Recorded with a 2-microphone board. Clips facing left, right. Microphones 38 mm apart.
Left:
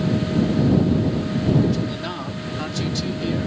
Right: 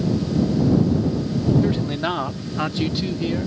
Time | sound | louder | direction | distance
1.6 | a man speaking | right 1 dB | 30° right (ahead or behind) | ?